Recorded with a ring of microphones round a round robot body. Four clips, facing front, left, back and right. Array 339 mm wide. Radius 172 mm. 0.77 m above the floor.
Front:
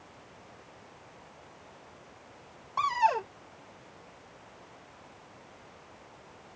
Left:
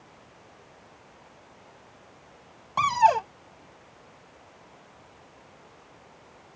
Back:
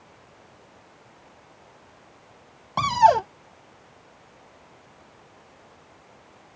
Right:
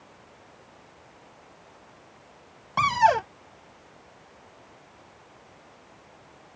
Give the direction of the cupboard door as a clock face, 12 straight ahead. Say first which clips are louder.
Even, back 9 dB; 5 o'clock.